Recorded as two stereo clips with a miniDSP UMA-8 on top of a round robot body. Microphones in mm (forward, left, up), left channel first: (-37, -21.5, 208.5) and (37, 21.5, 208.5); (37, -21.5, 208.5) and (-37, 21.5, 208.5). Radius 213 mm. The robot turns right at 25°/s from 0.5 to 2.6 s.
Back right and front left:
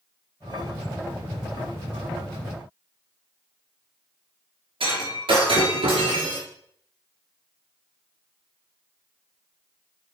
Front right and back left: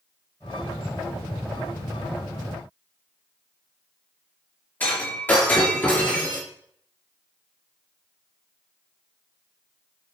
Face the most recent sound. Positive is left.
turn(degrees=40)